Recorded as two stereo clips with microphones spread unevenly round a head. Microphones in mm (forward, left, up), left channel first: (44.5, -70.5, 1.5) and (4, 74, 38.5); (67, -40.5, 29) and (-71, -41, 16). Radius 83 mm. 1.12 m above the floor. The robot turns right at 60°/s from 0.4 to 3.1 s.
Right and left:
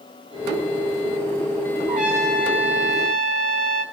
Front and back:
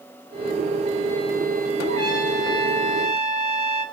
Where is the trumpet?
20° left, 6 m; by 3.9 s 90° left, 6 m.